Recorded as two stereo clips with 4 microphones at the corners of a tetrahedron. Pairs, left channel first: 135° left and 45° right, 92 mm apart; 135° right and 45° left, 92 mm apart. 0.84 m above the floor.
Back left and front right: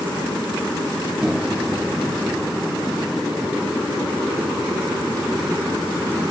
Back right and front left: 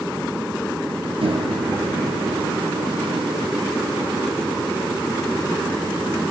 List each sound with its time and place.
1.2 s a microwave: 40° left, 1.7 m